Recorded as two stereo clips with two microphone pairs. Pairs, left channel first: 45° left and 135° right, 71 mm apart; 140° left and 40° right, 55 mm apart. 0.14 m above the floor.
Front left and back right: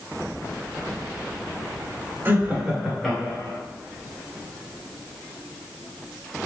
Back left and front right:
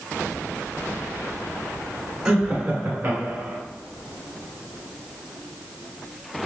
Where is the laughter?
120° right, 1.2 m; by 3.6 s 5° right, 1.6 m.